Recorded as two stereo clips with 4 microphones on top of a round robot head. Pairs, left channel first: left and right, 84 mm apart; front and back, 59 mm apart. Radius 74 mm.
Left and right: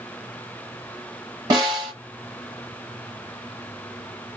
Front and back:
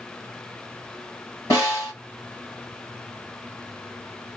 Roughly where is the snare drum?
Ahead right.